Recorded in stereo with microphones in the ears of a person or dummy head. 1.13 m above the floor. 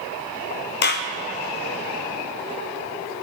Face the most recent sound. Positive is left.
turn(degrees=50)  # may be behind; listen again after turning